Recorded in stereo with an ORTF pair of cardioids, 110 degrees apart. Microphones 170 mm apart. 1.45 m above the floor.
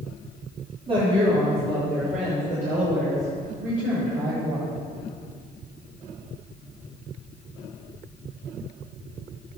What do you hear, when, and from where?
0.9 s a woman speaking: 30° right, 4 m; by 4.7 s 55° right, 9.5 m